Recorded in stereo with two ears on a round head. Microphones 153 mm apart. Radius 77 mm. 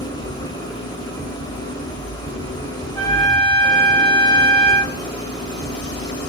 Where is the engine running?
25° left (ahead or behind), 1.2 m.